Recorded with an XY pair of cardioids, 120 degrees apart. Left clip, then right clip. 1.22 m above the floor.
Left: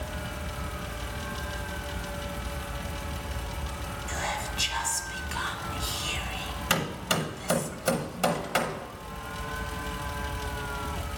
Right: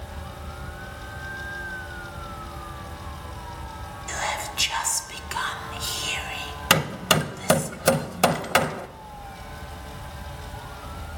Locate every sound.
0.0 s a fan: 70° left, 2.5 m
4.1 s whispering: 35° right, 0.6 m
6.7 s hammering: 50° right, 0.7 m